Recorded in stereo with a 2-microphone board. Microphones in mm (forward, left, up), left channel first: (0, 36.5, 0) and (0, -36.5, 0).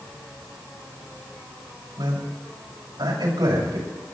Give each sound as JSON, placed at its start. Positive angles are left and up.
{"t": 2.0, "sound": "a man speaking", "side_deg": -80, "distance_m": 6.5}